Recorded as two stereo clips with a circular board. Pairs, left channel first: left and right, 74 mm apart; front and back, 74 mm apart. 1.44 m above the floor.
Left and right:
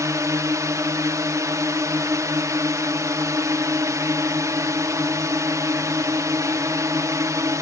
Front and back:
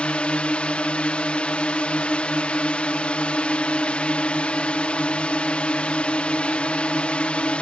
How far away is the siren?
I don't hear a siren.